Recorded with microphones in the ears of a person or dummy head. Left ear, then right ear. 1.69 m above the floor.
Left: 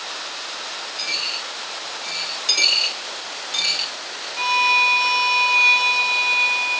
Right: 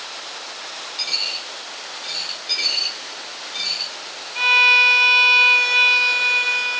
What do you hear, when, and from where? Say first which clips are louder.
1.0 s a dropped coin: right 2 dB; 10° right (ahead or behind), 1.5 m
2.5 s a dropped coin: left 4 dB; 45° left (ahead or behind), 1.4 m
4.3 s a violin: right 4 dB; 35° right (ahead or behind), 4 m